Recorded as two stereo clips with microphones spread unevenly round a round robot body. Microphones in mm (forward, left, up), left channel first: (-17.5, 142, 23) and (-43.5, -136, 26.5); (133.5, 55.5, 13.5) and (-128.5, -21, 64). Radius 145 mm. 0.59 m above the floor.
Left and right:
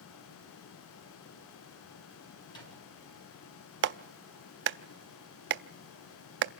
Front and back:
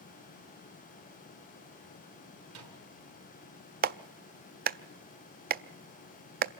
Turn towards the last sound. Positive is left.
turn(degrees=-110)